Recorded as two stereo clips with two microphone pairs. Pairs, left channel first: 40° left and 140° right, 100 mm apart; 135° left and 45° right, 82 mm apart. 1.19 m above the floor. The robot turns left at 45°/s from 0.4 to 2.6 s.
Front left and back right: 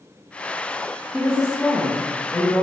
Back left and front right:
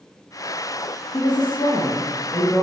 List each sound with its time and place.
1.1 s a woman speaking: 150° left, 0.6 m; by 2.6 s 85° left, 0.6 m